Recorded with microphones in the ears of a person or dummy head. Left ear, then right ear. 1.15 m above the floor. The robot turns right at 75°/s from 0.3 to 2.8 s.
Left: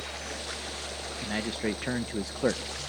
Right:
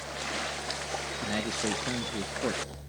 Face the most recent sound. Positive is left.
turn(degrees=115)